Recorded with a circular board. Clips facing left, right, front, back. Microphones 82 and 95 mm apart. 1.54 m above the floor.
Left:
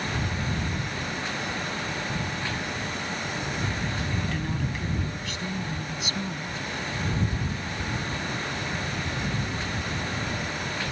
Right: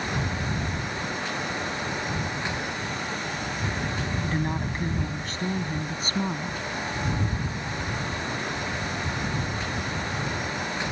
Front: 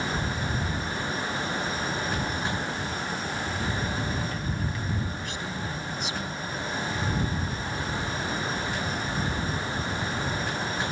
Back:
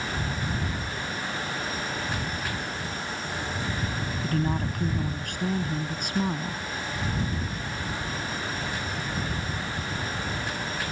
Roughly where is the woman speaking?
Behind right.